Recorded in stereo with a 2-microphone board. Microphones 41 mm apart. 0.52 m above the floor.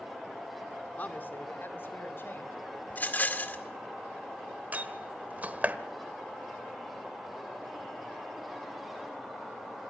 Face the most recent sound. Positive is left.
turn(degrees=-40)  # may be behind; listen again after turning